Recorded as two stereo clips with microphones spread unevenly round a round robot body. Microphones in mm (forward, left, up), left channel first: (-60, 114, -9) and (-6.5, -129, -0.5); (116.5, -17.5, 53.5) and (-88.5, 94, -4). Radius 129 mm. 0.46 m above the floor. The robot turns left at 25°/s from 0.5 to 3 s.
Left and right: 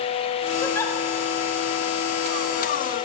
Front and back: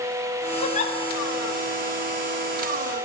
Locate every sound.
0.6 s a giggle: 35° left, 0.9 m; by 1.0 s 30° left, 0.9 m